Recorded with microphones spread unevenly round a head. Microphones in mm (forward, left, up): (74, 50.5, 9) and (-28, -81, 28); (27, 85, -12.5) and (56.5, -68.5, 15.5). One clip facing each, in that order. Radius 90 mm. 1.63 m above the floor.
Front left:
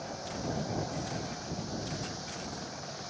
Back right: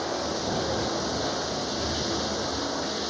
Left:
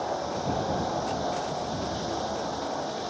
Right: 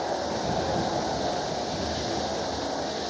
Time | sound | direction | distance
0.0 | running water | 160° right | ?